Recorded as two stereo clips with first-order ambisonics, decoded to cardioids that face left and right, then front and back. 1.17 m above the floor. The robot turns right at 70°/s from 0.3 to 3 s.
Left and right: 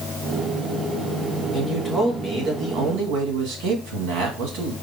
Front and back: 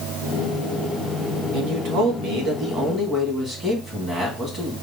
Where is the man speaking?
150° left, 1.8 m; by 4.7 s 110° right, 1.8 m.